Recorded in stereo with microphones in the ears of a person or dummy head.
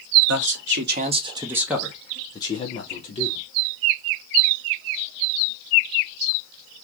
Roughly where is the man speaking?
Right.